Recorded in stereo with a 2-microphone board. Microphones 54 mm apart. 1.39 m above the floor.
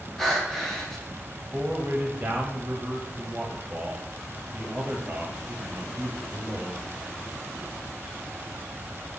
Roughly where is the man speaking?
Centre.